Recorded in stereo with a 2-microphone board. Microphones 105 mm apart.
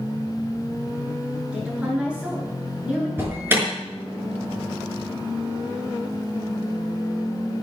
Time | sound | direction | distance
1.5 | a woman speaking | 10° right (ahead or behind) | 7.5 m
3.2 | an alarm | 20° right (ahead or behind) | 6 m